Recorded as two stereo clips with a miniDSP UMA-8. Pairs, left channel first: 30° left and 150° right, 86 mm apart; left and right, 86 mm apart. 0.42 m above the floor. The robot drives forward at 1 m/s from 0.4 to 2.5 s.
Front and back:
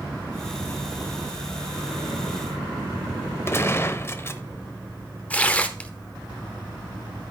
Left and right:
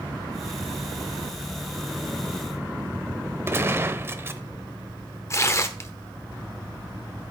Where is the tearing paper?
90° left, 0.8 m.